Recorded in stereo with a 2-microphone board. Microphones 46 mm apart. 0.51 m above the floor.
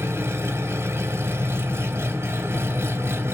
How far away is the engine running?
About 1.5 m.